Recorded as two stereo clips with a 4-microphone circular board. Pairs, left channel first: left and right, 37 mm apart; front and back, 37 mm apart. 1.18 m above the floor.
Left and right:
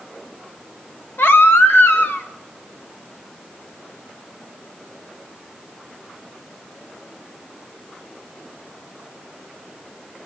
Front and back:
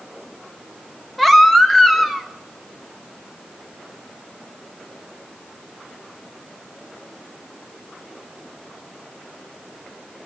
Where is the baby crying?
85° left, 1.0 m.